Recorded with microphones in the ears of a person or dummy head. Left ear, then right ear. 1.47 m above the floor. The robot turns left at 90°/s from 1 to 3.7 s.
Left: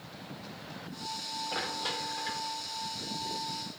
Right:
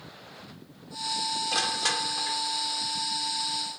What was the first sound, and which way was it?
Crushing, 85° right.